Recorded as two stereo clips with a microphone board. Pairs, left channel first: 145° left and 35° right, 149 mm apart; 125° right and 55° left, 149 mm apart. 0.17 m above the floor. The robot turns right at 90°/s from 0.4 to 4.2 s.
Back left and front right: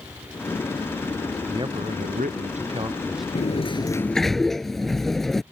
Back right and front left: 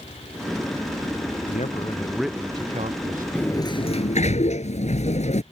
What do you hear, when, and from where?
1.5 s a man speaking: 100° right; by 3.2 s 60° left
3.4 s a sliding door: 155° left; by 5.4 s 125° right